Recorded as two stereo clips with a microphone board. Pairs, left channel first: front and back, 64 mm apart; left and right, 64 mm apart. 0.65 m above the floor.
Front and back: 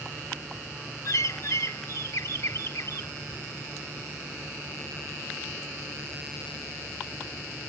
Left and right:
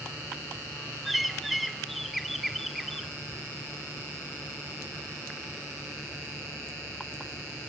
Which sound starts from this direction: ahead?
A bird, at 1.1 s.